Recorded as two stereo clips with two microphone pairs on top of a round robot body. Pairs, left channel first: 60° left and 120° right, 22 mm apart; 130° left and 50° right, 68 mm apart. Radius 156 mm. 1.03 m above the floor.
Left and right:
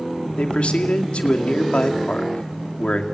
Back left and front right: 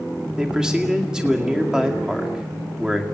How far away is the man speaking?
About 2.5 m.